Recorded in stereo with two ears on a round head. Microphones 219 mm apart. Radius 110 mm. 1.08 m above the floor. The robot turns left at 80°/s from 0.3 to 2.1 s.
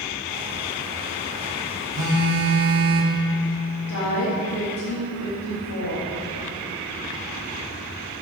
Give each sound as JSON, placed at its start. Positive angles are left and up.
{"t": 1.9, "sound": "a phone buzzing", "side_deg": -70, "distance_m": 1.6}
{"t": 3.9, "sound": "a woman speaking", "side_deg": 70, "distance_m": 1.9}